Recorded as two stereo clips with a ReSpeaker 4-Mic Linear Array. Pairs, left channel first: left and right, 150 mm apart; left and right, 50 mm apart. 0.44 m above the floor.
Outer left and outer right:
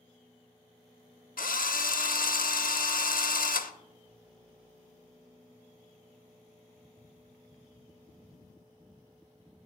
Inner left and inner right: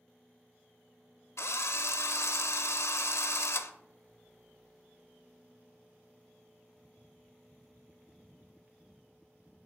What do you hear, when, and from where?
1.4 s a drill: 75° left (ahead or behind), 0.5 m